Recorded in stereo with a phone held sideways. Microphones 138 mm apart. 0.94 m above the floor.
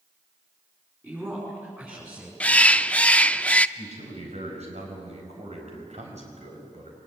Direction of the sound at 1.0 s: 15° right (ahead or behind).